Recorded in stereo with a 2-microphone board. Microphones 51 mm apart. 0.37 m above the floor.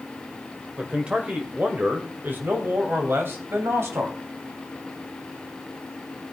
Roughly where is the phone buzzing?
I don't hear a phone buzzing.